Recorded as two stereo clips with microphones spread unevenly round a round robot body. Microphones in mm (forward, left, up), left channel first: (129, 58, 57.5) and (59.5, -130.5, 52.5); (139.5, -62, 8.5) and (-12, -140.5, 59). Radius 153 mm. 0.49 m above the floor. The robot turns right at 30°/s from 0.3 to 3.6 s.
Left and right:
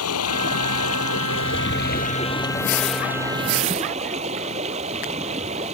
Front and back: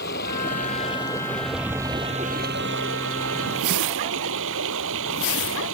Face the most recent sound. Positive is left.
turn(degrees=180)